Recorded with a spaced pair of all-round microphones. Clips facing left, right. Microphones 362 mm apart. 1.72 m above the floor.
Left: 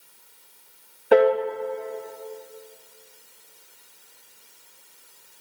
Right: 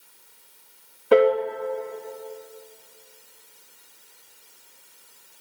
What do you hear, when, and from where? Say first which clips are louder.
1.1 s a piano: even; 5° right (ahead or behind), 0.6 m